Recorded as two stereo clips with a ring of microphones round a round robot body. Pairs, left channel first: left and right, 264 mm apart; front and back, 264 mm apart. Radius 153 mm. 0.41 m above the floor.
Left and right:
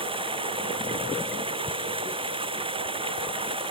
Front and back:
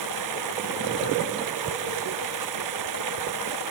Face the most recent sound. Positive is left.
turn(degrees=-160)